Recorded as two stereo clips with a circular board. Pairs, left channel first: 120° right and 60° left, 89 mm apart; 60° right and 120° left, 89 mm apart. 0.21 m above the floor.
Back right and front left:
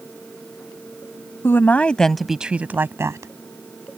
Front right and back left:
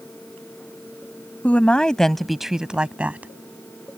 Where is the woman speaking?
115° right; by 3.3 s 60° left.